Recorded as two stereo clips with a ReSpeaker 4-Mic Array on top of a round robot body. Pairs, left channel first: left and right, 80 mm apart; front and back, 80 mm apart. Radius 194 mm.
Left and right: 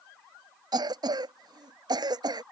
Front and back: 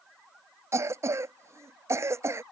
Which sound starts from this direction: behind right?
A cough, at 0.7 s.